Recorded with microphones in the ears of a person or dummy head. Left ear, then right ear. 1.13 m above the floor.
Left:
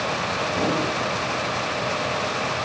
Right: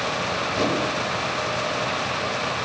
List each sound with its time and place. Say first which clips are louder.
0.5 s a whoosh: right 1 dB; 50° right (ahead or behind), 5 m